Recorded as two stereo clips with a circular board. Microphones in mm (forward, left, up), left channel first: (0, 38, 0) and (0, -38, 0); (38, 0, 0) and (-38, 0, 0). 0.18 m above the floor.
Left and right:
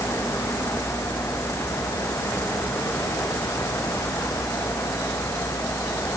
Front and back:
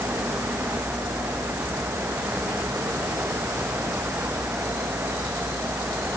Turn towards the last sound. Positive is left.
No sound to turn to.